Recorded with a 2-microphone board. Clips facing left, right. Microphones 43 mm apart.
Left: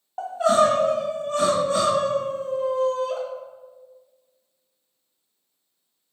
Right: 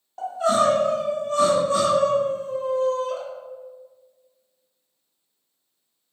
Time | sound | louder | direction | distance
0.2 | crying | left 2 dB | 30° left (ahead or behind) | 1.6 m